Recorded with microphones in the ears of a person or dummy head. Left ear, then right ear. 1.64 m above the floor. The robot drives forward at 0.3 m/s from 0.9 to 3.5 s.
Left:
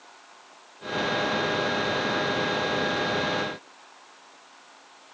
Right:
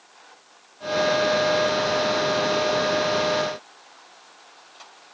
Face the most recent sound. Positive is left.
No sound to turn to.